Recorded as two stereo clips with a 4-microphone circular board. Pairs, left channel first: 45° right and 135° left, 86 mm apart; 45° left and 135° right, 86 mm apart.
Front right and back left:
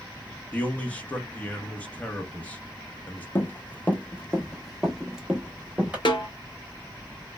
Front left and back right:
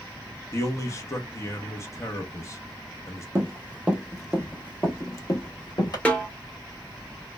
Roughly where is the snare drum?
Ahead right.